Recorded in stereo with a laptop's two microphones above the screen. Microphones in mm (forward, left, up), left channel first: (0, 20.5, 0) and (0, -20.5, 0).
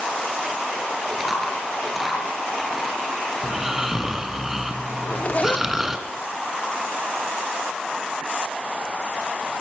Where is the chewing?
Centre (ahead or behind), 4 m.